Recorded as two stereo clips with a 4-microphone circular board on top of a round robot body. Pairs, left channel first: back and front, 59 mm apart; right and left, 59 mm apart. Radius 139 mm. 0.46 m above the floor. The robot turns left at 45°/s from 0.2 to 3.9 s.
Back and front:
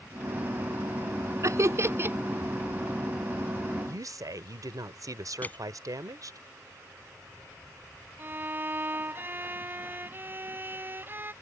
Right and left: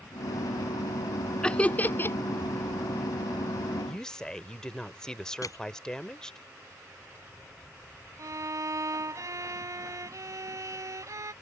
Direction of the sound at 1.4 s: 15° right.